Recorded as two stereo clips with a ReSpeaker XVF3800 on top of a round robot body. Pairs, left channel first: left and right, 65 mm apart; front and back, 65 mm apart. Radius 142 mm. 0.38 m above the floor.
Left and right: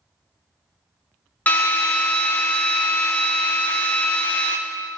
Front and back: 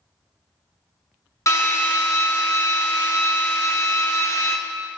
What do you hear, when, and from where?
1.5 s a drill: 30° left, 1.3 m